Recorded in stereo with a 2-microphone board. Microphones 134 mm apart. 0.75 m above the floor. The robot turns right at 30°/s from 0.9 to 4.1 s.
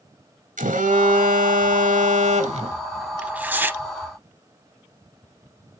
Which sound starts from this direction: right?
A phone buzzing, at 0.6 s.